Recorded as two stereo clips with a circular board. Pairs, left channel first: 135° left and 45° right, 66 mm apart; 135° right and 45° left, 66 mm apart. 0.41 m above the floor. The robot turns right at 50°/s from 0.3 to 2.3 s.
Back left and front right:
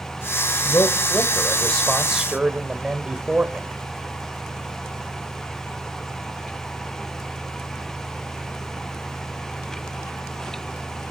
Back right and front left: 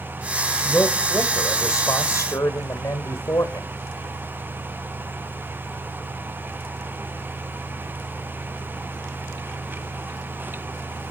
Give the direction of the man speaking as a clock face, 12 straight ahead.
7 o'clock.